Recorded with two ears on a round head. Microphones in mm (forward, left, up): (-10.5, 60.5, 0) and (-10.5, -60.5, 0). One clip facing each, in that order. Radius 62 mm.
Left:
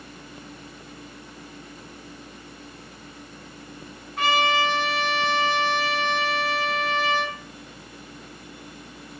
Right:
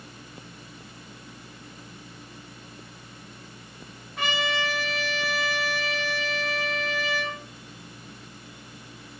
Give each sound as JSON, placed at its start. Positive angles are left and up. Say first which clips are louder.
{"t": 4.2, "sound": "a trumpet", "louder": "left 7 dB", "side_deg": -80, "distance_m": 5.0}